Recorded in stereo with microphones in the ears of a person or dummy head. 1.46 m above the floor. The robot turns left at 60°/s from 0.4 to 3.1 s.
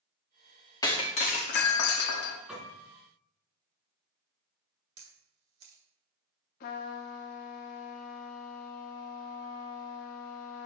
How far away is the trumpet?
About 1.0 m.